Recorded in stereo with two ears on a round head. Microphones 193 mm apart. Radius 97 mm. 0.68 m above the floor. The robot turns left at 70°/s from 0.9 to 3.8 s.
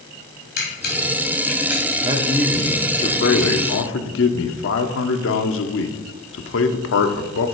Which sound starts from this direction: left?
A camera shutter, at 0.6 s.